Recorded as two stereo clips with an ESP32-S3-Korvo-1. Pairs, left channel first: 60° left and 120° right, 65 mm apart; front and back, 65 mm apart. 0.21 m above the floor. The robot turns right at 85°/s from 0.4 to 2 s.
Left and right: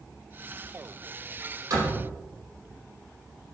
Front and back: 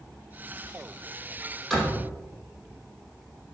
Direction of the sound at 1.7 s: 90° right.